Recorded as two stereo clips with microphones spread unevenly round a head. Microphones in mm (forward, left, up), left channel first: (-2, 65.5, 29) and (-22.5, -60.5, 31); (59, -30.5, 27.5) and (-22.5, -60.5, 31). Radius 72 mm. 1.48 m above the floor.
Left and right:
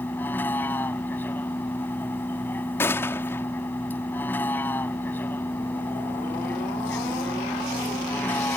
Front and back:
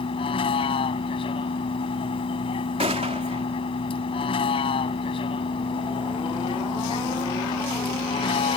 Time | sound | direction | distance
0.0 | a vehicle | 5° left | ?
2.8 | a gunshot | 155° left | ?